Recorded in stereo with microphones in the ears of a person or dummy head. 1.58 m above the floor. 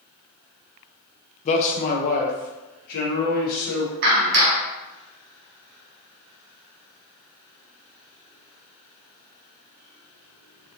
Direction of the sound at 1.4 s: 35° left (ahead or behind).